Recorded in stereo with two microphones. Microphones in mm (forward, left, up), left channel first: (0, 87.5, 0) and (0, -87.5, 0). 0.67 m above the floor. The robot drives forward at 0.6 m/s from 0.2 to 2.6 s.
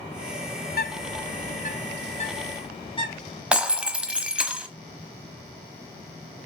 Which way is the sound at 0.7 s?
60° left (ahead or behind).